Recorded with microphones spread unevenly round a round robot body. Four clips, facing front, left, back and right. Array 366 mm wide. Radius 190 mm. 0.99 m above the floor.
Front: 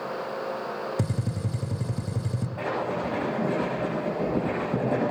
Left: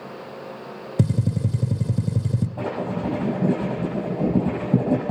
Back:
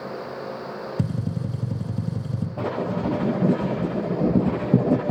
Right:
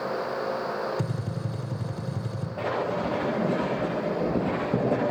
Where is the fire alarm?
I don't hear a fire alarm.